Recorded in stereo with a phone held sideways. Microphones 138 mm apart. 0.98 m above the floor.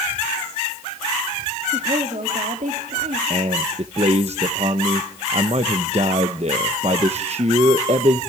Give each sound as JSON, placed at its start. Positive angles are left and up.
{"t": 1.7, "sound": "a woman speaking", "side_deg": -55, "distance_m": 2.0}
{"t": 3.3, "sound": "a man speaking", "side_deg": -50, "distance_m": 0.8}